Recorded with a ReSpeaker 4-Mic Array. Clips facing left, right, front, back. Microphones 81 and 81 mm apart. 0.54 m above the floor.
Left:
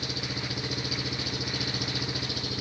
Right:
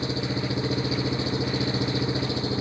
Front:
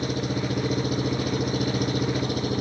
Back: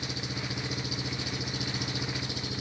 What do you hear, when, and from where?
0.0 s an engine running: 35° right